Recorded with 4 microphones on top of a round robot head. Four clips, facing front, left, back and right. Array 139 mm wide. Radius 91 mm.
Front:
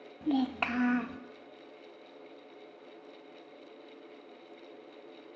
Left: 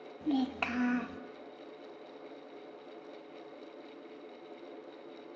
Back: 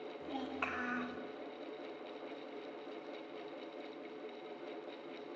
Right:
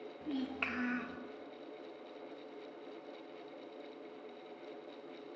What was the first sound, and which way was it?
A child speaking, 20° left.